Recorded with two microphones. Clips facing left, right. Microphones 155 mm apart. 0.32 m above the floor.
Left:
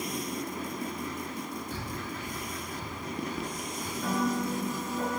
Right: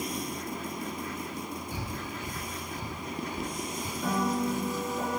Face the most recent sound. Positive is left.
turn(degrees=-5)  # may be behind; listen again after turning